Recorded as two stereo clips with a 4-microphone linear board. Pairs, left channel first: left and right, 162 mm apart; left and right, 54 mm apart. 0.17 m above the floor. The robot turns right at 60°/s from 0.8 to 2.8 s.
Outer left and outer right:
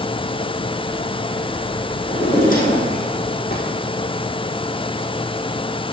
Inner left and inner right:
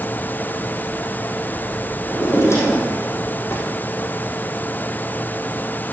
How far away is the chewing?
I don't hear chewing.